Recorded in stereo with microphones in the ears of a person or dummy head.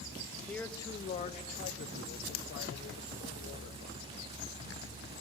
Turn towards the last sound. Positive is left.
turn(degrees=80)